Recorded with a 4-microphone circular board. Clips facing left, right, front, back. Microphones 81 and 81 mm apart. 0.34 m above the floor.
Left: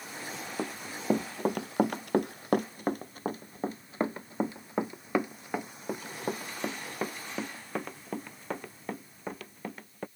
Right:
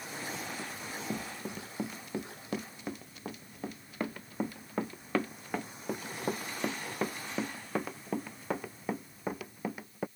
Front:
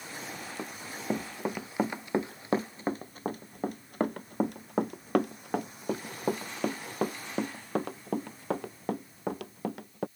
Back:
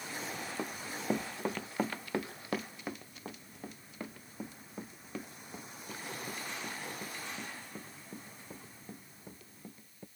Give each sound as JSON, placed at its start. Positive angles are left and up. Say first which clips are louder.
{"t": 0.6, "sound": "running footsteps", "louder": "left 4 dB, even", "azimuth_deg": 95}